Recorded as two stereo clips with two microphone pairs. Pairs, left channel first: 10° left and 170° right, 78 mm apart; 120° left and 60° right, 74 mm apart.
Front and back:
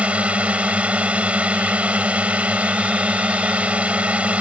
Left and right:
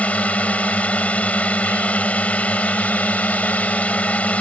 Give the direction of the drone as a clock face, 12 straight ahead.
7 o'clock.